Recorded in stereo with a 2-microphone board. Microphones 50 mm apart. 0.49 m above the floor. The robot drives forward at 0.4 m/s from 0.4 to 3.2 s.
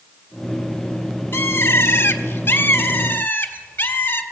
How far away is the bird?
About 1.3 m.